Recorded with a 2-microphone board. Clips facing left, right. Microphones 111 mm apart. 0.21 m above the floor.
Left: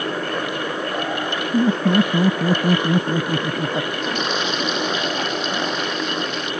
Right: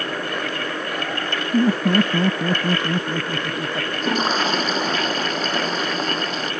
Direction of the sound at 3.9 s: 35° right (ahead or behind).